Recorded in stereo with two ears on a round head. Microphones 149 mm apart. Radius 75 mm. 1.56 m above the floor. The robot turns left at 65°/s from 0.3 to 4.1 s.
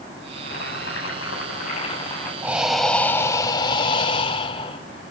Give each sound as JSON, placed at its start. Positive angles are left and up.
{"t": 0.3, "sound": "boiling", "azimuth_deg": 135, "distance_m": 9.0}
{"t": 2.4, "sound": "breathing", "side_deg": -10, "distance_m": 1.5}